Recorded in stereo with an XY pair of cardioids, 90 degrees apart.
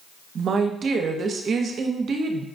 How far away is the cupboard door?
I don't hear a cupboard door.